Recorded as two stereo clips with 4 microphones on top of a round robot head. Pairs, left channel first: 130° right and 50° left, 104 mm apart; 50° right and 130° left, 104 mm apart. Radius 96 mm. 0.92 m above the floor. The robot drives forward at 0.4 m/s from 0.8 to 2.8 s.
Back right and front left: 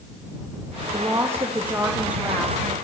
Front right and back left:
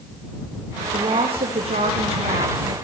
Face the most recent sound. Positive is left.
turn(degrees=135)